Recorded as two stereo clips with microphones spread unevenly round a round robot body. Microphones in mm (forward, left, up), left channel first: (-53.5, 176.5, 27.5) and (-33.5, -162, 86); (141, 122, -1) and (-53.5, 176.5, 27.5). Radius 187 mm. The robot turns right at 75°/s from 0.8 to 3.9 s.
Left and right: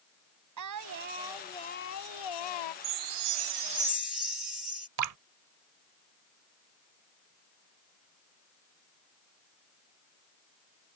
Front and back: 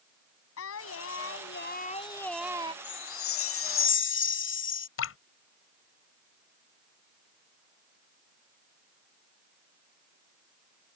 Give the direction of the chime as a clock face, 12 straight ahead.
3 o'clock.